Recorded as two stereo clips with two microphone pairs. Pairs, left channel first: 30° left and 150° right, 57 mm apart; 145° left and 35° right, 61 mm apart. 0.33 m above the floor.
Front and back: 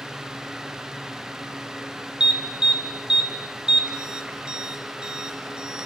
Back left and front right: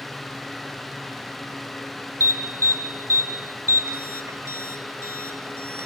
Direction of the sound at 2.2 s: 75° right.